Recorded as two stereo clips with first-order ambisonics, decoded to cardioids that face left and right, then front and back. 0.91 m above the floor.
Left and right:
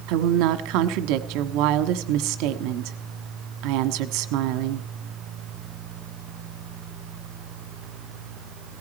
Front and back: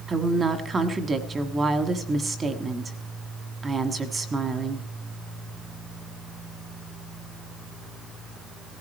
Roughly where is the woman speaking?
Right.